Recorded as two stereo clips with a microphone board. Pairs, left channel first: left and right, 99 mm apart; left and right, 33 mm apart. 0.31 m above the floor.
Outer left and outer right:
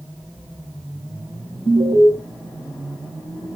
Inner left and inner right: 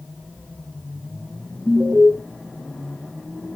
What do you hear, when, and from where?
1.6 s an alarm: 45° right (ahead or behind), 2 m